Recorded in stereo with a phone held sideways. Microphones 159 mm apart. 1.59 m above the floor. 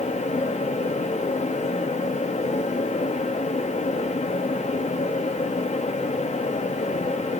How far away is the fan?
About 1.0 m.